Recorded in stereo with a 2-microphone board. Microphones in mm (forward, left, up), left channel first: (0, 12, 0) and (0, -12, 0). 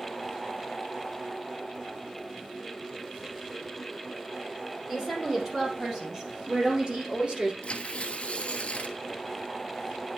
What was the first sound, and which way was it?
A woman speaking, 20° right (ahead or behind).